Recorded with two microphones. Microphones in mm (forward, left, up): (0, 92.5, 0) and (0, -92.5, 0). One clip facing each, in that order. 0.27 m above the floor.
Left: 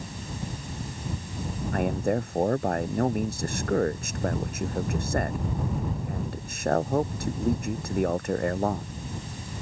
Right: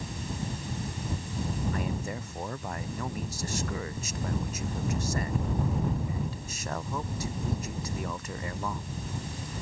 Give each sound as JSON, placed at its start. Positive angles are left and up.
{"t": 1.7, "sound": "a man speaking", "side_deg": 55}